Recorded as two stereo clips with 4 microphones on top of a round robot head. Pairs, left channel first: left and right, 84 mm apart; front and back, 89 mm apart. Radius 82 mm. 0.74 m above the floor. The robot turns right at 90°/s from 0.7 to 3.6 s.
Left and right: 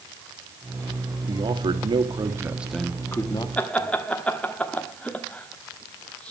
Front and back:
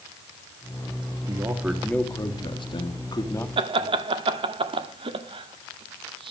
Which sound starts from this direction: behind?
Laughter, at 3.6 s.